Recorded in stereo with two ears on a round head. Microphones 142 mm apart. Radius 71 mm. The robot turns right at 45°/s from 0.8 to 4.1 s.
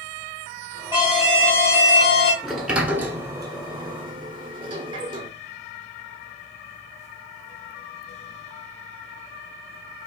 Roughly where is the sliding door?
Centre.